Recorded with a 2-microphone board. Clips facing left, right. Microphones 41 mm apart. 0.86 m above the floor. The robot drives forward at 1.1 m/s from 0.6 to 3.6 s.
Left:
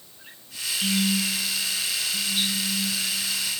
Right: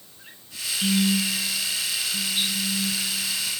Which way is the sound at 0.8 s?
35° right (ahead or behind).